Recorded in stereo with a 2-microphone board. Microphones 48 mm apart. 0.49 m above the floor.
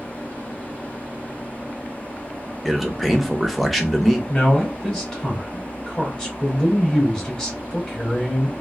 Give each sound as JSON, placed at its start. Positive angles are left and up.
{"t": 2.6, "sound": "a man speaking", "side_deg": 0, "distance_m": 0.7}
{"t": 4.3, "sound": "a man speaking", "side_deg": 15, "distance_m": 2.5}